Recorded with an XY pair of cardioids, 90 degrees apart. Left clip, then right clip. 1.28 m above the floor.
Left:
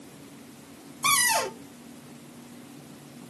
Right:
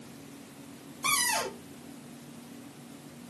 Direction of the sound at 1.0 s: 45° left.